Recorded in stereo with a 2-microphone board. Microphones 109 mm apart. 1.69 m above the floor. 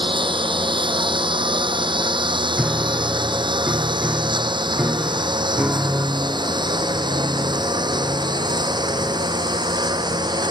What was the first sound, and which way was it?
A lawn mower, 50° right (ahead or behind).